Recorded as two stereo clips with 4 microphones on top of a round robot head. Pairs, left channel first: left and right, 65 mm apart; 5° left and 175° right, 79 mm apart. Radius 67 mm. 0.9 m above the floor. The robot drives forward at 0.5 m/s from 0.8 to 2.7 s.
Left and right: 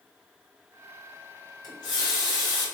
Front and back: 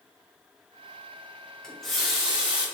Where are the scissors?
No scissors in this recording.